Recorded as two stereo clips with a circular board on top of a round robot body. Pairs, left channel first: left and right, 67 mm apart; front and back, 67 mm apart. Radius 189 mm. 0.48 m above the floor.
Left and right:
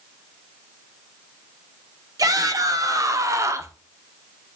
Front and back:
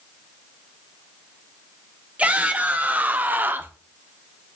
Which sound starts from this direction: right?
A shout, at 2.2 s.